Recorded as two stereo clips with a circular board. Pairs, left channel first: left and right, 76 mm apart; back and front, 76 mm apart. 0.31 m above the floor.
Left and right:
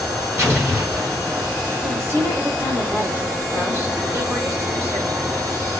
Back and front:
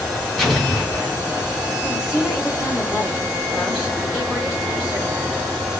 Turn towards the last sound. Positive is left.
turn(degrees=-70)